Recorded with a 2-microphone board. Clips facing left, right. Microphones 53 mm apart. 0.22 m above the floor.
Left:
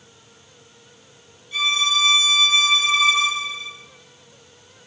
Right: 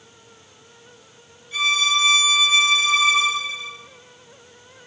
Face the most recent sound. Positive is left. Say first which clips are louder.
# right 1 dB
turn(degrees=-10)  # may be behind; listen again after turning